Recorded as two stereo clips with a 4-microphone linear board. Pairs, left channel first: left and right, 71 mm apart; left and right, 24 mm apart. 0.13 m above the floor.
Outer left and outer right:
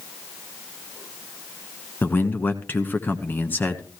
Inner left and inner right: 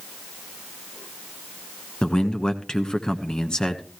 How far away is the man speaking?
About 1.1 m.